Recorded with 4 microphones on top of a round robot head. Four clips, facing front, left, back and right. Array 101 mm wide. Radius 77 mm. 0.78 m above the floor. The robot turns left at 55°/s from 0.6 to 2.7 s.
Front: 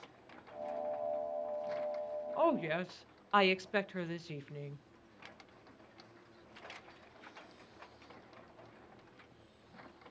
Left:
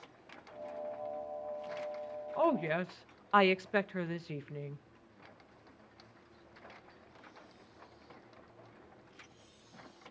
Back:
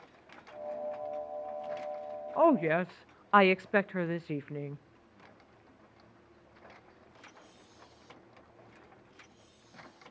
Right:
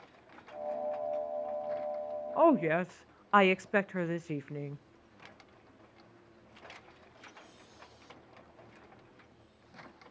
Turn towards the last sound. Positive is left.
turn(degrees=-150)